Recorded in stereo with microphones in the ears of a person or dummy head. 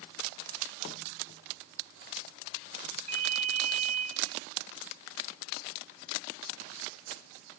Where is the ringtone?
40° right (ahead or behind), 0.8 m.